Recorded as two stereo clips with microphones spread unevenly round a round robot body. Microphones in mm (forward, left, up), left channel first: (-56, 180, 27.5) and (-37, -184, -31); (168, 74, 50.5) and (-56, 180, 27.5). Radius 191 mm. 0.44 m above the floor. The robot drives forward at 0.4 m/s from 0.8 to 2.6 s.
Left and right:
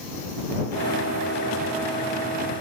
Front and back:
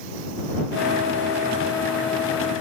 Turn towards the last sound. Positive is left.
No sound to turn to.